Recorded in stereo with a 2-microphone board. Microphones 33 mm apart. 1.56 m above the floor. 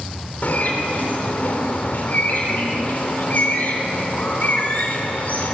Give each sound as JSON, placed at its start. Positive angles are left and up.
{"t": 0.4, "sound": "a bird", "side_deg": 60, "distance_m": 3.5}